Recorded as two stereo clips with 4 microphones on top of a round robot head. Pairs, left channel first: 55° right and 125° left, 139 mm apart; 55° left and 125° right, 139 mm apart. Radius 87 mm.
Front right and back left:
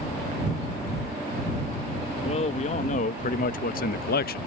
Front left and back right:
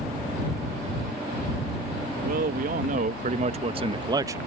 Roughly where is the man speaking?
Right.